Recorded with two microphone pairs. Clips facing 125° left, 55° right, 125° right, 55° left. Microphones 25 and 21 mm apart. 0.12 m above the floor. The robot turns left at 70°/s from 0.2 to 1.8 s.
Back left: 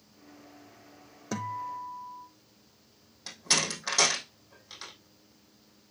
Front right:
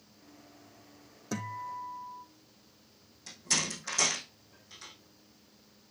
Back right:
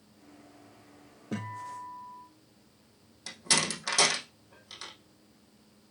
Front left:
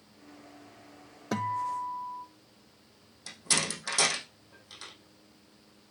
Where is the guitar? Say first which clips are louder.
Back left 3 dB, front left 7 dB; 50° left, 1.3 m; by 2.2 s 15° left, 1.3 m.